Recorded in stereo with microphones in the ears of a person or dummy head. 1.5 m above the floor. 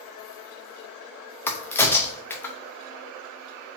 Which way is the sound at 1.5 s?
15° left (ahead or behind).